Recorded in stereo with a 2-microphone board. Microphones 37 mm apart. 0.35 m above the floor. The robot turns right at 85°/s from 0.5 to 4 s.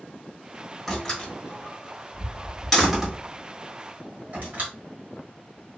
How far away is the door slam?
About 1.3 m.